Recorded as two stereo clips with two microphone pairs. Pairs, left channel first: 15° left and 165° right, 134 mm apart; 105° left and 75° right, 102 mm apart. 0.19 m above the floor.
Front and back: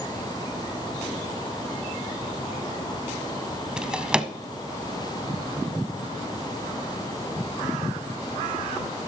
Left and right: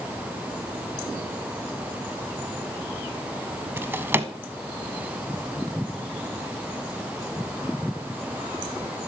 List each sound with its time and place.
3.8 s a drawer: 95° right, 0.6 m